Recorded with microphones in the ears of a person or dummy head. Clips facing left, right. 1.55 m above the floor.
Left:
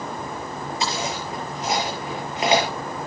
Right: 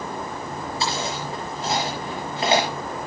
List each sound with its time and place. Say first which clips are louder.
0.8 s chewing: even; 15° left (ahead or behind), 6.5 m